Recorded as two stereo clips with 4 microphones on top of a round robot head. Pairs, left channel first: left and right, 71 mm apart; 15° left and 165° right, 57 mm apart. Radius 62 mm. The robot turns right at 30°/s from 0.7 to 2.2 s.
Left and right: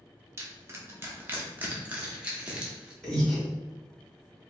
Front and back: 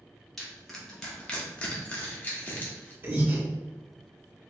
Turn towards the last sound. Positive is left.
turn(degrees=170)